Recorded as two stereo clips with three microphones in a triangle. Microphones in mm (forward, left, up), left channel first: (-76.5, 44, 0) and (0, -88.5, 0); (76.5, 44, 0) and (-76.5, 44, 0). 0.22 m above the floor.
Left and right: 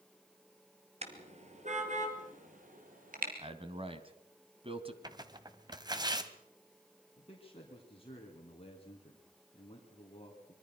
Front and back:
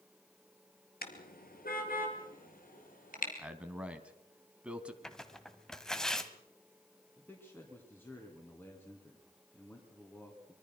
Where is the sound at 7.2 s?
75° left, 2.5 m.